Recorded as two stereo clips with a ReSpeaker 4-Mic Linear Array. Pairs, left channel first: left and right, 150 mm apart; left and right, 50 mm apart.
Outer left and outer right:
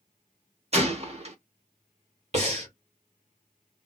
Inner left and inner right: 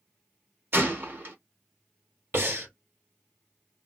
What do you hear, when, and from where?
0.7 s a gunshot: 45° right (ahead or behind), 0.9 m
2.3 s breathing: 45° right (ahead or behind), 1.6 m